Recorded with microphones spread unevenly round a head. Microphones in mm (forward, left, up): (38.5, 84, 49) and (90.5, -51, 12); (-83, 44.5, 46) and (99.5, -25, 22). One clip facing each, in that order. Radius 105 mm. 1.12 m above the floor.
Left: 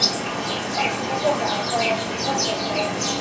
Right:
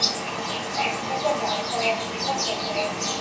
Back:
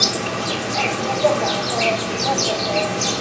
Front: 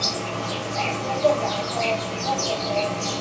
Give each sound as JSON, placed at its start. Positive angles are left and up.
{"t": 0.0, "sound": "an insect", "azimuth_deg": 165, "distance_m": 0.8}